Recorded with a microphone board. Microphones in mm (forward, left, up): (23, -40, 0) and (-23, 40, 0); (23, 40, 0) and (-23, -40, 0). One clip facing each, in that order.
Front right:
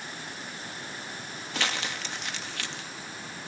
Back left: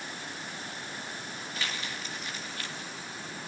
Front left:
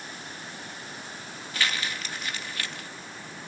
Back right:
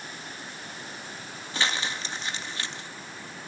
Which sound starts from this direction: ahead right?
Crumpling, at 1.5 s.